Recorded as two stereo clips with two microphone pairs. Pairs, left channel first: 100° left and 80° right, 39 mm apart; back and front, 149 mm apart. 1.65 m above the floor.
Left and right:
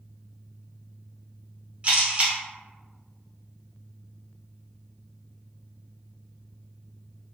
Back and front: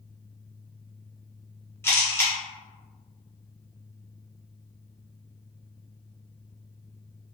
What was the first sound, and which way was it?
A camera shutter, 115° right.